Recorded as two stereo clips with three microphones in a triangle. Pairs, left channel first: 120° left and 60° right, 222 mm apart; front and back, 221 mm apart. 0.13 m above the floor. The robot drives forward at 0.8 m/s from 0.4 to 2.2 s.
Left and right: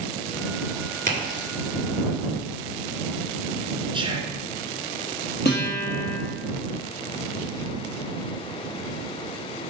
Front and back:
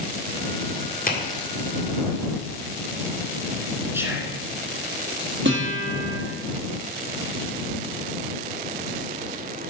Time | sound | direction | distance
1.1 | a crack | 30° right | 2 m
3.9 | whispering | 110° right | 1.3 m
5.5 | a guitar | 155° left | 2 m